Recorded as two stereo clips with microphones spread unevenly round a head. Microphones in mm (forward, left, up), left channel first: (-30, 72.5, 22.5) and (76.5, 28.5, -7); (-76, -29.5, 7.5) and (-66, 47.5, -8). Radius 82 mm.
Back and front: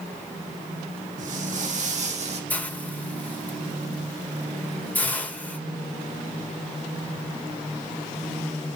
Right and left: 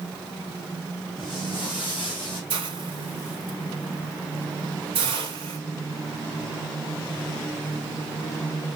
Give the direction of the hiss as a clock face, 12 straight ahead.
9 o'clock.